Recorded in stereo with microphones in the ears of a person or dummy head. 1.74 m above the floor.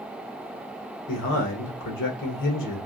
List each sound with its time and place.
1.1 s a man speaking: 65° left (ahead or behind), 1.9 m